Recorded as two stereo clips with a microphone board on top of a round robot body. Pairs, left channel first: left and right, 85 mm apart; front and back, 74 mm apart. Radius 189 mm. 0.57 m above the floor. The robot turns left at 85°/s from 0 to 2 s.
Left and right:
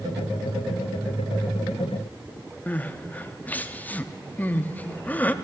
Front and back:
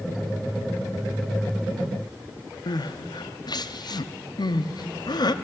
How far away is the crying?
About 0.8 m.